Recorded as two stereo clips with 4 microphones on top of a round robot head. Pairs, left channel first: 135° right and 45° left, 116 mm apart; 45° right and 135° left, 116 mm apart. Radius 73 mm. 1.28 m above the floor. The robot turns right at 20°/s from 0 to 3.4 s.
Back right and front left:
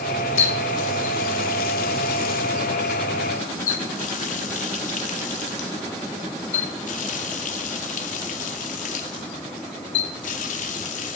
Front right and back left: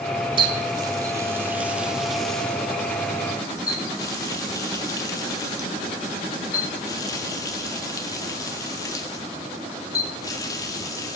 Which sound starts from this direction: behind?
A running tap, at 0.4 s.